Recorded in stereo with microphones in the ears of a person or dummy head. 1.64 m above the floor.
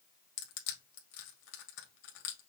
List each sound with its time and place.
0.4 s crushing: 65° left (ahead or behind), 1.3 m